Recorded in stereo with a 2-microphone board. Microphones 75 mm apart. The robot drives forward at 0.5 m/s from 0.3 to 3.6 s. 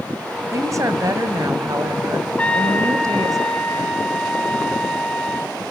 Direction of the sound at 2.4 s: 15° left (ahead or behind).